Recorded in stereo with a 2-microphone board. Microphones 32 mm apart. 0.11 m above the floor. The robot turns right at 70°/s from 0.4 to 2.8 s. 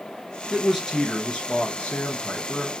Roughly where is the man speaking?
Ahead.